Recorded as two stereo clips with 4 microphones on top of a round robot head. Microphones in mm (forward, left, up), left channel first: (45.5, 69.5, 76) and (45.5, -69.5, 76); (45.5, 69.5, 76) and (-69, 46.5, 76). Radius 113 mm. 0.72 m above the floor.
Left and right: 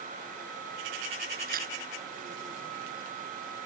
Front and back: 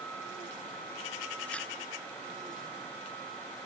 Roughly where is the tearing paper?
Right.